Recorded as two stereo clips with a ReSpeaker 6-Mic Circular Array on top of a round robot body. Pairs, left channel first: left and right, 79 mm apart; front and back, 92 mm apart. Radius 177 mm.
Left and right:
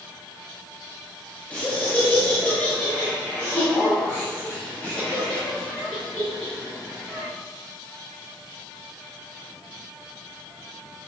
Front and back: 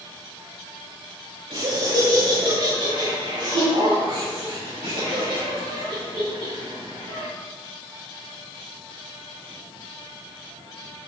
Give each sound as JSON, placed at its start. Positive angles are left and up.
{"t": 1.5, "sound": "laughter", "azimuth_deg": 155, "distance_m": 4.0}